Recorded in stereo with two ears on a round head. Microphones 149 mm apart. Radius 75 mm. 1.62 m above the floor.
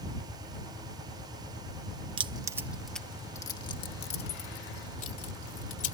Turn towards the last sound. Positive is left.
turn(degrees=55)  # may be behind; listen again after turning